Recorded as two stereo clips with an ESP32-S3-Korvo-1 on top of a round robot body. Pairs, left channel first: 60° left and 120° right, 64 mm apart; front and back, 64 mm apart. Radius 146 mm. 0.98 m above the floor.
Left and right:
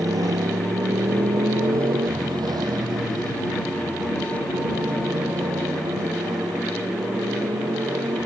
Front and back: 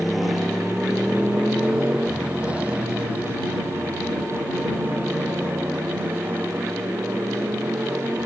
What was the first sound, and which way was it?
A motorcycle, 90° right.